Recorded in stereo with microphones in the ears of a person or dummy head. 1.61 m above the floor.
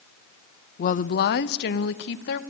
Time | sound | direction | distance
0.8 | a woman speaking | 50° left (ahead or behind) | 0.8 m